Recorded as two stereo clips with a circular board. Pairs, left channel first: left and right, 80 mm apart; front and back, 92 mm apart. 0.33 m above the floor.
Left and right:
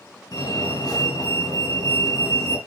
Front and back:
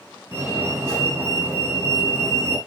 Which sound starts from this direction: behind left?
A fire alarm, at 0.3 s.